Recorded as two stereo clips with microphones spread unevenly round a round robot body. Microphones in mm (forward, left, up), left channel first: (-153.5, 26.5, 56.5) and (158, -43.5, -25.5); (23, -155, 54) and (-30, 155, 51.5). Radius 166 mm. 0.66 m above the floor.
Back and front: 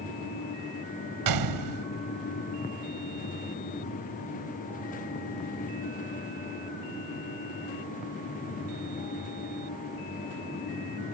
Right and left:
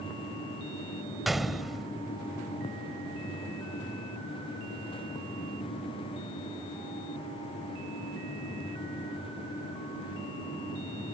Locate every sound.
1.3 s a gunshot: 10° left